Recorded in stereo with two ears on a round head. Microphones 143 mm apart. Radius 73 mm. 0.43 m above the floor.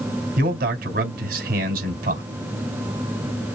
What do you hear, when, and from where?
0.4 s a man speaking: 55° right (ahead or behind), 2.5 m